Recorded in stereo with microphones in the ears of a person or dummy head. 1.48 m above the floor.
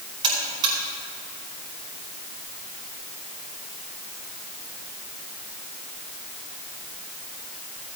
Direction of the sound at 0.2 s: 30° right (ahead or behind).